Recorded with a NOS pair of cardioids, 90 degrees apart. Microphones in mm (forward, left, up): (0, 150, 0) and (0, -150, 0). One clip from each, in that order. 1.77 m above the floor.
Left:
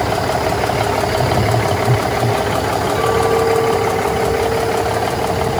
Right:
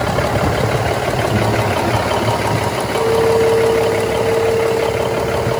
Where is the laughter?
70° right, 7 m; by 2.4 s 75° right, 6.5 m.